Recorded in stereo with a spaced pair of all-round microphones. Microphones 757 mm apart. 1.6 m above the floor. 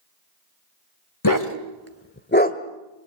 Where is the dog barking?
25° left (ahead or behind), 1.7 m; by 2.6 s 10° left (ahead or behind), 1.3 m.